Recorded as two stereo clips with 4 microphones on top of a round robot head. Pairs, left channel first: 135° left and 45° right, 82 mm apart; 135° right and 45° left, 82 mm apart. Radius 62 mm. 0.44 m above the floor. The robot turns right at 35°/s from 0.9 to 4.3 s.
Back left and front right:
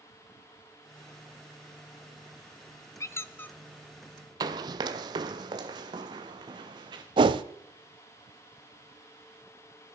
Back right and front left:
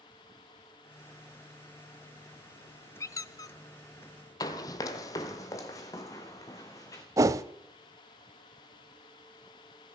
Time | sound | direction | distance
3.0 | a squeak | straight behind | 0.6 m
4.4 | running footsteps | 85° right | 1.0 m
7.2 | a whoosh | 10° right | 0.7 m